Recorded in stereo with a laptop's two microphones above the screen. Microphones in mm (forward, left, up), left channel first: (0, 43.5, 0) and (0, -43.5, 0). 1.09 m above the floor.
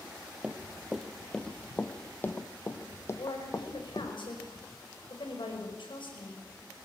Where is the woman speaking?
85° left, 5 m.